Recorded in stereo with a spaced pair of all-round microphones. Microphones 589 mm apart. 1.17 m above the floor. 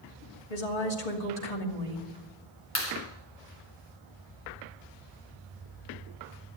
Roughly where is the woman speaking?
Left.